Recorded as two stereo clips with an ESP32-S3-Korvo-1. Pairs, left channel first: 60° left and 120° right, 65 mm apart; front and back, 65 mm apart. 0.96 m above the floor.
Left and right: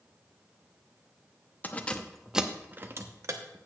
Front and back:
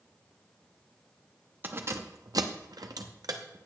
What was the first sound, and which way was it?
Keys jangling, 125° left.